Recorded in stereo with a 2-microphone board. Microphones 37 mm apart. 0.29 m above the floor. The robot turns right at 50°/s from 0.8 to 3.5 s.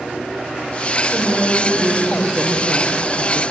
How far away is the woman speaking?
About 5.5 m.